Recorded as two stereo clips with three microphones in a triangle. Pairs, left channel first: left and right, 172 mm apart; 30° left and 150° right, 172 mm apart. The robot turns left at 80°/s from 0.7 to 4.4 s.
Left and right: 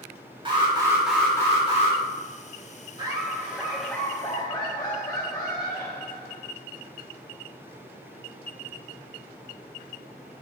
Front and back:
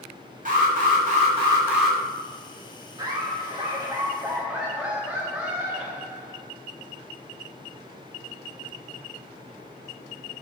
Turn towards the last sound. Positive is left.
turn(degrees=130)